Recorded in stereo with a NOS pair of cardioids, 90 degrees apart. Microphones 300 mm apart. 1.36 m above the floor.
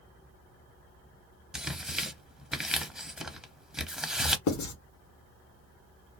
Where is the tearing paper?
Straight ahead, 0.6 m.